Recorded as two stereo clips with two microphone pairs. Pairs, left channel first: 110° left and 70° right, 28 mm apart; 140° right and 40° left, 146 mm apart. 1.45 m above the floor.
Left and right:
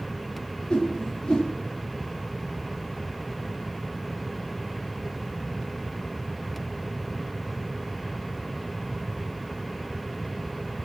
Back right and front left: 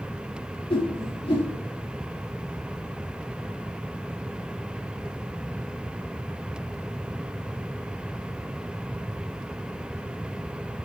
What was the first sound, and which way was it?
A whoosh, 170° left.